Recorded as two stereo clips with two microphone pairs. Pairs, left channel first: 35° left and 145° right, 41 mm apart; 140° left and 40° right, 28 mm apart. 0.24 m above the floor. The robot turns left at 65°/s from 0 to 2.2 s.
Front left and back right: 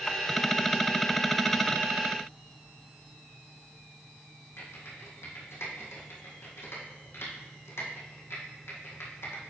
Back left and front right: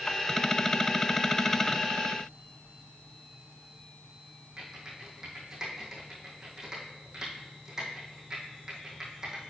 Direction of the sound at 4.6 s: 30° left.